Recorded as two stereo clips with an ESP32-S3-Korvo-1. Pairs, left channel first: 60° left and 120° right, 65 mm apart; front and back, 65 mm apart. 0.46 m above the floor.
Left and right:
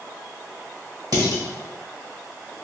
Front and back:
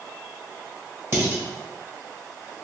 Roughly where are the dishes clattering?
Behind right.